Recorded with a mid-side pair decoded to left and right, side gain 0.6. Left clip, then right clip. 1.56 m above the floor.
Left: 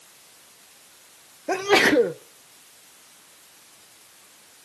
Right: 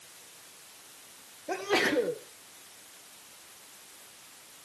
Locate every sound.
1.5 s a sneeze: 45° left, 1.1 m